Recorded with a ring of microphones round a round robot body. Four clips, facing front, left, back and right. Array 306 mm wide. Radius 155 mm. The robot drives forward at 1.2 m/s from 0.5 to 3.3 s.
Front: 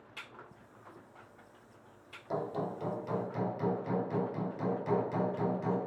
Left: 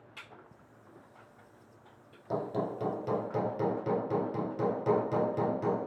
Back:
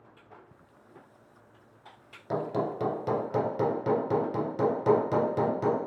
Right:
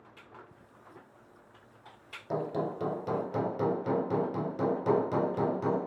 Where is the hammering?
175° right, 0.9 m; by 5.9 s straight behind, 1.8 m.